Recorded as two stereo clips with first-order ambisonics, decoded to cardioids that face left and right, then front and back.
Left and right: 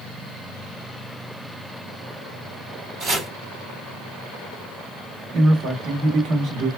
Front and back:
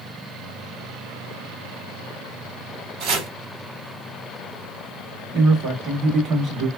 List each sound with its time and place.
3.0 s chopping: 145° right, 1.9 m
5.3 s a man speaking: 120° right, 2.0 m